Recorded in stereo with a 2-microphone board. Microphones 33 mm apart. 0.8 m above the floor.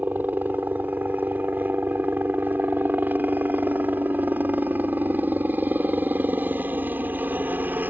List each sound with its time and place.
0.0 s a helicopter: 60° right (ahead or behind)